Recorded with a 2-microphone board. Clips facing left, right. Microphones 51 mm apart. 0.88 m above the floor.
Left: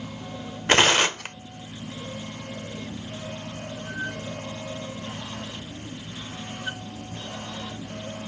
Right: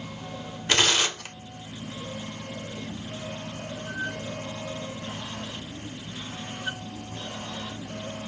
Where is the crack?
No crack in this recording.